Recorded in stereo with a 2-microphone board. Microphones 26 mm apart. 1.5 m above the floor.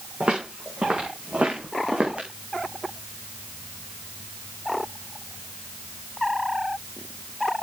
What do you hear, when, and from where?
0.2 s footsteps: 45° right (ahead or behind), 6.5 m; by 2.3 s 50° right (ahead or behind), 5 m